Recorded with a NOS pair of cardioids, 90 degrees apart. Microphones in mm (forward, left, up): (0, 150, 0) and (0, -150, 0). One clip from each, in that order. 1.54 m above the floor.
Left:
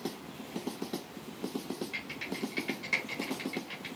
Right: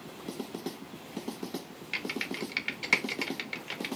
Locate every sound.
1.9 s typing on a keyboard: 70° right, 1.1 m